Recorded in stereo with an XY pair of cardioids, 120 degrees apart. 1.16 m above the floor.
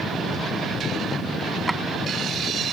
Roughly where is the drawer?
Ahead.